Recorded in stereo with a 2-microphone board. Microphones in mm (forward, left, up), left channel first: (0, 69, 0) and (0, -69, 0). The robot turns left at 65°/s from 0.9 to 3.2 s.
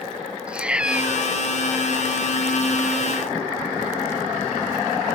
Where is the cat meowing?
5° right (ahead or behind); by 1.3 s 30° right (ahead or behind).